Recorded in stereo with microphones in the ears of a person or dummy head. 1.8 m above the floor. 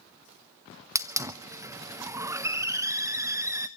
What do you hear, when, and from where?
0.9 s a hiss: 15° right (ahead or behind), 0.7 m